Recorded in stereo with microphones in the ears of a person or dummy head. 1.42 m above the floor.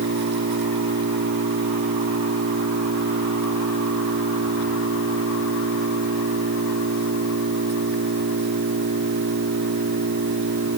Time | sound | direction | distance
0.0 | an engine running | 60° right (ahead or behind) | ?